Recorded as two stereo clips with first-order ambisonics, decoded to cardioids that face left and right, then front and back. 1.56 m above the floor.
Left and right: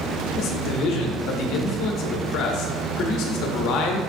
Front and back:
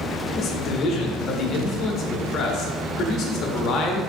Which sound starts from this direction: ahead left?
A man speaking, at 0.3 s.